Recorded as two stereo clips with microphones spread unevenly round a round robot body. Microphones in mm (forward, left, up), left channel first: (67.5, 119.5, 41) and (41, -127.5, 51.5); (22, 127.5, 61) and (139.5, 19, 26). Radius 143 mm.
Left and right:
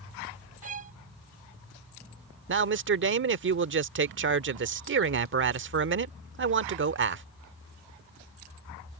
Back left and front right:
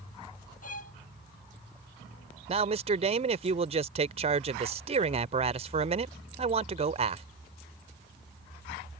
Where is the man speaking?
65° right.